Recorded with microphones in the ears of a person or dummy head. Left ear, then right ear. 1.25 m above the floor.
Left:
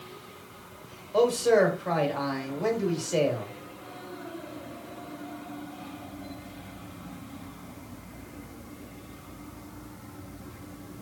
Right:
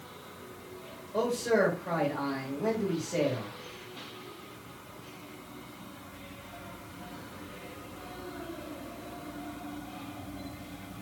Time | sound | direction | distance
1.1 | a man speaking | 50° left (ahead or behind) | 1.9 m